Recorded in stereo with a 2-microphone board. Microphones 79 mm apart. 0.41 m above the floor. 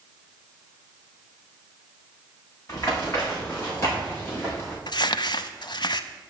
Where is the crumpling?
65° left (ahead or behind), 0.5 m.